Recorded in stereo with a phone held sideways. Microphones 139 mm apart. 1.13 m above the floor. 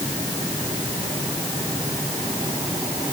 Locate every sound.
Only background noise.